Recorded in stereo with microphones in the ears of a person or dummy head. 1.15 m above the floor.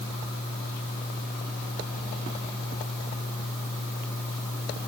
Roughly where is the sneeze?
I don't hear a sneeze.